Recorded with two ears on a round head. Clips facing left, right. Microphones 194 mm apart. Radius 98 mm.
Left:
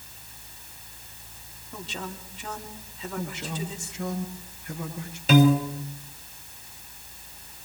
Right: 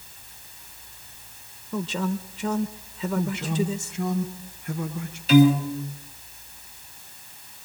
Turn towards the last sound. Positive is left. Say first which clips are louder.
# right 3 dB
turn(degrees=45)  # may be behind; listen again after turning